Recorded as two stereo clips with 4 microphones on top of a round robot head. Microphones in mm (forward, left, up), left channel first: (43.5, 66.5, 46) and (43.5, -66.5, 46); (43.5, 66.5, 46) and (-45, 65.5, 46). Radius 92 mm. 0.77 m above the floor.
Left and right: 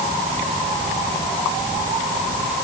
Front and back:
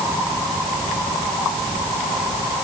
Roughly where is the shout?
I don't hear a shout.